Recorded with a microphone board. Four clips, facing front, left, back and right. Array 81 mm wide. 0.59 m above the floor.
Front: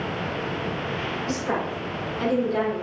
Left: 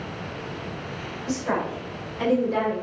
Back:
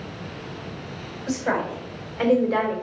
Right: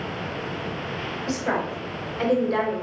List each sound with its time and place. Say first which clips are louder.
1.3 s a woman speaking: even, back 4 dB; 150° right, 3.5 m; by 2.8 s 165° right, 2.5 m